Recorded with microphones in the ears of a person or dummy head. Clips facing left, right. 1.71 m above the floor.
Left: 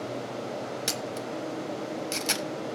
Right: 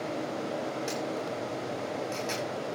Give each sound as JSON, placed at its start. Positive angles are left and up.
{"t": 0.9, "sound": "a camera shutter", "side_deg": 85, "distance_m": 1.1}